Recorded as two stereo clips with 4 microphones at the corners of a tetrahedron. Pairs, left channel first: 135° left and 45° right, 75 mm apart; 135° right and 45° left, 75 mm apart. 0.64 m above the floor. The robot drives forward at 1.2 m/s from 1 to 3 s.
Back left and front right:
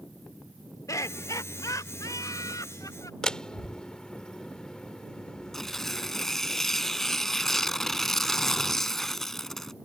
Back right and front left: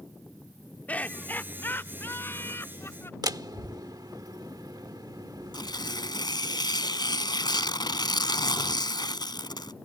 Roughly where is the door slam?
Ahead left.